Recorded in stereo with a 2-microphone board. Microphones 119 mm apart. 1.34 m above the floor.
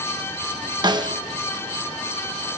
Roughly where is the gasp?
I don't hear a gasp.